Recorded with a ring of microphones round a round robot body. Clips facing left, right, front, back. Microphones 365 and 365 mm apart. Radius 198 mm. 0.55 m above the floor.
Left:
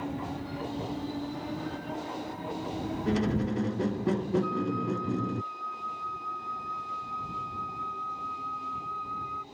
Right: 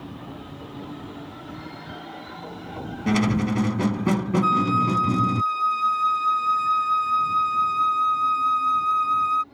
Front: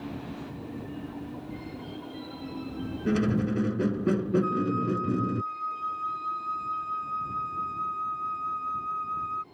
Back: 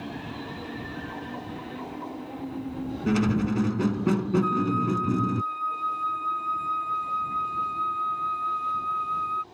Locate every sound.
3.1 s a squeak: 110° right
4.4 s a flute: 105° right